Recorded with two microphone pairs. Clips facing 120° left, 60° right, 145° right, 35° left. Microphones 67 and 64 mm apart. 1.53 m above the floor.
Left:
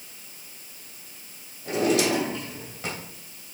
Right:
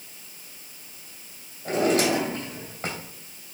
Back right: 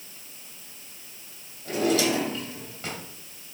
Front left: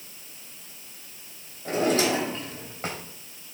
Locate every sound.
1.6 s a drawer: 15° right, 3 m